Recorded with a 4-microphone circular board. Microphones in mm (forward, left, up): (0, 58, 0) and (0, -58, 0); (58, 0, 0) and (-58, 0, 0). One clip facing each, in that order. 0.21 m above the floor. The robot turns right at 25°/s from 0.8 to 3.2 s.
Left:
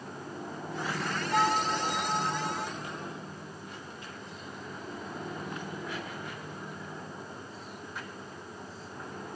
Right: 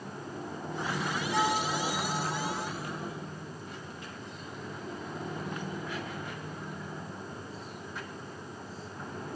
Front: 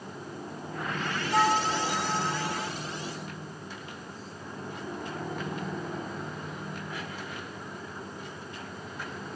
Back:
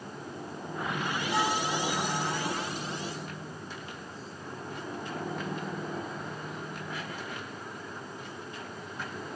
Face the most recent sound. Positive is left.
turn(degrees=180)